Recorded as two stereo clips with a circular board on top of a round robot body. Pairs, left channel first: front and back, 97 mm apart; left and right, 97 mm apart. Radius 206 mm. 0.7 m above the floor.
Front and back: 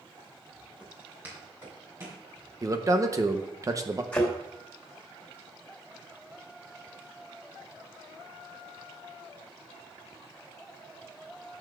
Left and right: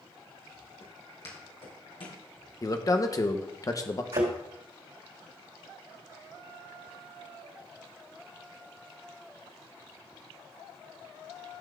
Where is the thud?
80° right, 3 m.